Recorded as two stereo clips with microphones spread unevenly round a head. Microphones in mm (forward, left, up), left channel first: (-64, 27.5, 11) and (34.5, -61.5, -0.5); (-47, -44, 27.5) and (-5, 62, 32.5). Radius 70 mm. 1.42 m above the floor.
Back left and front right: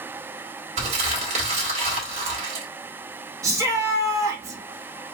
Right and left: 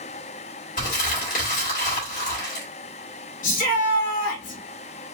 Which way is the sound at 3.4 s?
110° right.